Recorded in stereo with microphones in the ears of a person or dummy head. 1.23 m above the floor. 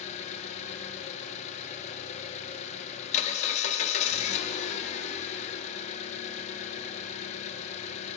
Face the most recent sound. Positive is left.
turn(degrees=35)  # may be behind; listen again after turning